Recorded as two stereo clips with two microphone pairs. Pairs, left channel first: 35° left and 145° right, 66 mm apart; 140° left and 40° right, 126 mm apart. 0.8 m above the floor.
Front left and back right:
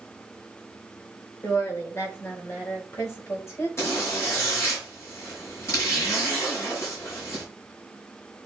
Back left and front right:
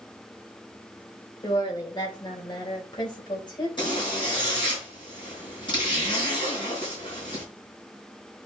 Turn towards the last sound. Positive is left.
turn(degrees=85)